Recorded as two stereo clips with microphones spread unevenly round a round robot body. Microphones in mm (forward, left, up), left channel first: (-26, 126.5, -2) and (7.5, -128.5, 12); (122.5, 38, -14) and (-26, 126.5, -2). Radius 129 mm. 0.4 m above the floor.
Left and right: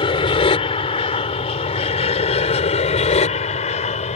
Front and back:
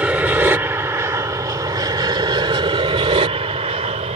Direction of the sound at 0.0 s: 80° left.